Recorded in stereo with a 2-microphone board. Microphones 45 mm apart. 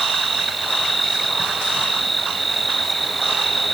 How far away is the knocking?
I don't hear knocking.